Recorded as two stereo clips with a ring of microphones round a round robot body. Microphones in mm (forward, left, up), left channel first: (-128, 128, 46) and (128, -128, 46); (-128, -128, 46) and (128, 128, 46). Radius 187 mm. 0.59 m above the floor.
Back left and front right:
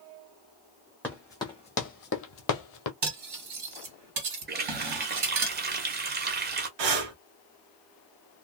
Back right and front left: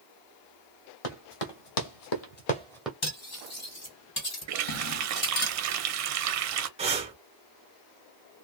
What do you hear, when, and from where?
1.0 s running footsteps: 140° right, 1.4 m; by 2.9 s 130° left, 0.8 m
3.0 s cutlery clinking: 75° right, 1.8 m
4.5 s a running tap: 15° left, 0.7 m
6.8 s breathing: 30° right, 0.8 m